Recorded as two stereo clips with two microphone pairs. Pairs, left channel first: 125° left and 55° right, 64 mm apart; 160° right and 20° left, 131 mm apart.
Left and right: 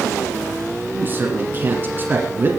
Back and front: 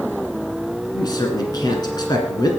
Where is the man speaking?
105° right, 1.8 m.